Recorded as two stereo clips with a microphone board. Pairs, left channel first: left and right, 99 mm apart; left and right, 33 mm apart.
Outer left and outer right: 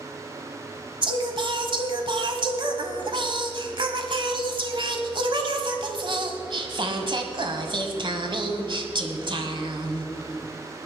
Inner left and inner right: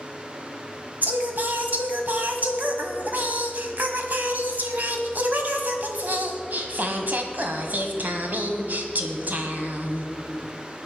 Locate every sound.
1.0 s singing: 55° right (ahead or behind), 1.4 m